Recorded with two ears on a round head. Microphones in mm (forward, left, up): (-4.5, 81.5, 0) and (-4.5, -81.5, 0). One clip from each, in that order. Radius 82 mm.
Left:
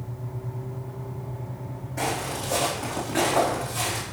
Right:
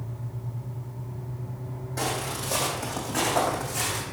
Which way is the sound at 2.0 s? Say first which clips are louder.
Left 2 dB; 50° right (ahead or behind).